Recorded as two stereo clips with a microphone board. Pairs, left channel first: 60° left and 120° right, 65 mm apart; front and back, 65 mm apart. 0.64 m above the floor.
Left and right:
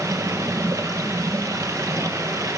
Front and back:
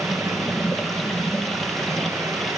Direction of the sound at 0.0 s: 85° right.